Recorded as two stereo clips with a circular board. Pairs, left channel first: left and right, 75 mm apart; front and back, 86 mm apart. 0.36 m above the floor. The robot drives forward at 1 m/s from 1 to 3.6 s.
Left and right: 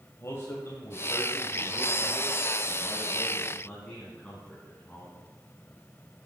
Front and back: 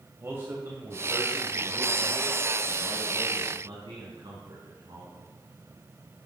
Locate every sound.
0.2 s a man speaking: 125° left, 2 m; by 5.2 s 160° left, 4 m